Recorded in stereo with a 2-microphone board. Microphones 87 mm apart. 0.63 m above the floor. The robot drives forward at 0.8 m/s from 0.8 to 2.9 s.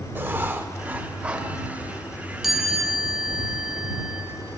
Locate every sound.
0.1 s writing: 25° right (ahead or behind), 0.6 m; by 1.5 s 10° right (ahead or behind), 1.1 m
2.4 s a chime: centre (ahead or behind), 1.4 m